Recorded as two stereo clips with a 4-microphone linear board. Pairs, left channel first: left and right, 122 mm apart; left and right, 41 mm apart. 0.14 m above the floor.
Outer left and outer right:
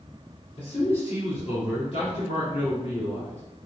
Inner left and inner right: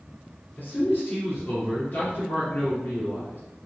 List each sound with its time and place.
0.6 s a man speaking: 45° left (ahead or behind), 1.8 m